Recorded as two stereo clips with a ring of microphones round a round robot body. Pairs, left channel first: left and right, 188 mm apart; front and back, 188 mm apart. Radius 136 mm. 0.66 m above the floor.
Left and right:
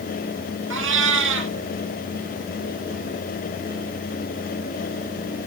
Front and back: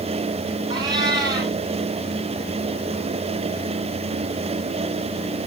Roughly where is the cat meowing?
Right.